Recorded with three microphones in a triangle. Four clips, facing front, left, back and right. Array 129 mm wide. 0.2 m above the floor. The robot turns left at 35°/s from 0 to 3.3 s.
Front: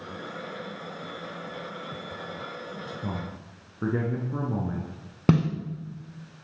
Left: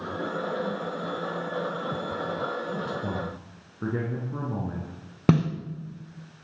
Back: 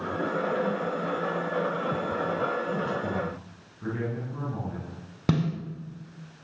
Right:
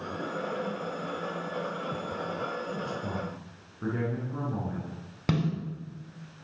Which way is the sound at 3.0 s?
40° left.